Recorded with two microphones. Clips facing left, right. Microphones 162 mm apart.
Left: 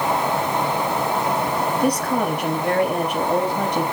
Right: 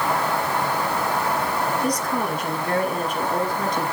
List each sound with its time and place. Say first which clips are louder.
1.8 s a woman speaking: left 4 dB; 70° left (ahead or behind), 4.5 m